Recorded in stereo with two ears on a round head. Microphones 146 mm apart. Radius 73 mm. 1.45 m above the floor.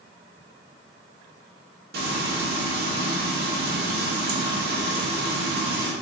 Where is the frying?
65° right (ahead or behind), 1.9 m.